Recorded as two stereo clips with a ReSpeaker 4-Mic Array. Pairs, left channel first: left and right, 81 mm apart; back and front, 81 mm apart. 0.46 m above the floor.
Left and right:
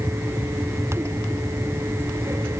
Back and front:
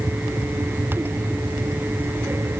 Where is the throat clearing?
I don't hear throat clearing.